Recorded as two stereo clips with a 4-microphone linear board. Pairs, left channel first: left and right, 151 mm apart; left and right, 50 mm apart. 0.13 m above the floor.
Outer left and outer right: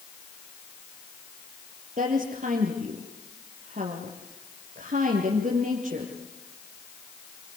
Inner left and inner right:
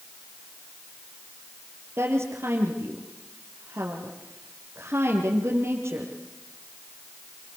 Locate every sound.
2.0 s a woman speaking: 55° right (ahead or behind), 3.5 m